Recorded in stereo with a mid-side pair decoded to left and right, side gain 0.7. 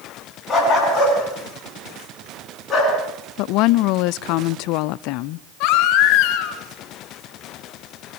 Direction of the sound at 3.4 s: 65° left.